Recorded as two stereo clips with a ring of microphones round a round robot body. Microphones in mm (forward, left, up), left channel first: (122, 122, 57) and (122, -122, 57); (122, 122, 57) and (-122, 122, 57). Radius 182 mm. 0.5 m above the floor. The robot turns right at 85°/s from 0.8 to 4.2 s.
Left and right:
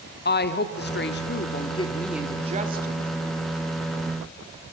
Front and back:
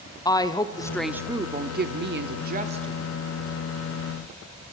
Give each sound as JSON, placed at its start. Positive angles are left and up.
{"t": 0.2, "sound": "a woman speaking", "azimuth_deg": 70, "distance_m": 1.3}